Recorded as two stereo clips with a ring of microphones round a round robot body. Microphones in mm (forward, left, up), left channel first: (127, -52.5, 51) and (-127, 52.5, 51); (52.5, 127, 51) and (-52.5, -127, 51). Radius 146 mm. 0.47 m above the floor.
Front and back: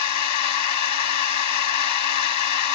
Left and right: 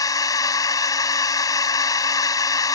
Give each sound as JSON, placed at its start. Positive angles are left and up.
{"t": 0.0, "sound": "a drone", "azimuth_deg": -10}